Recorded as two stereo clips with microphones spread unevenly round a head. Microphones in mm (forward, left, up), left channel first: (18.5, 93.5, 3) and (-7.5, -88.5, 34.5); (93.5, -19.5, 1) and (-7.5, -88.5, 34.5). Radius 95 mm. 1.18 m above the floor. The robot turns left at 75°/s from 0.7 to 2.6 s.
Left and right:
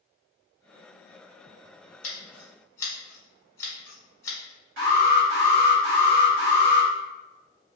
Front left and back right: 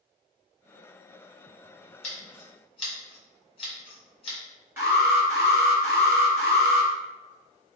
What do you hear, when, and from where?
2.0 s scissors: 40° left, 1.2 m; by 4.4 s straight ahead, 1.2 m
4.8 s an alarm: 70° right, 1.9 m